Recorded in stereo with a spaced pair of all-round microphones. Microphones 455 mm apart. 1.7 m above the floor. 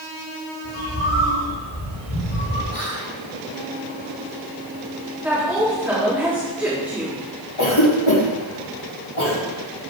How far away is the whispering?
About 1.7 m.